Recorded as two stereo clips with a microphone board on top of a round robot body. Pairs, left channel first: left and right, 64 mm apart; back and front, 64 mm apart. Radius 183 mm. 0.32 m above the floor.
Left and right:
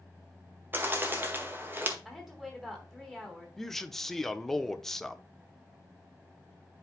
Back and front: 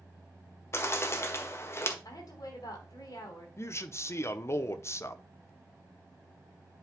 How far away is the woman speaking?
About 4 m.